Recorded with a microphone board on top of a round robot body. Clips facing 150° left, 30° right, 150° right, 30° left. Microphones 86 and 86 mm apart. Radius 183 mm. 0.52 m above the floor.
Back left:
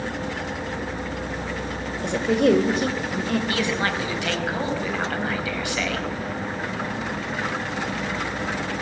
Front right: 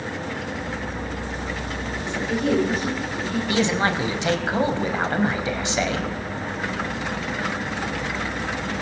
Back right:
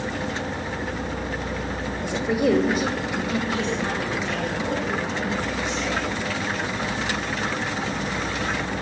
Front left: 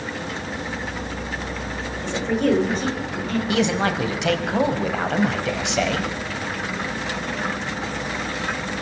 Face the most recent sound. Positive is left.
turn(degrees=35)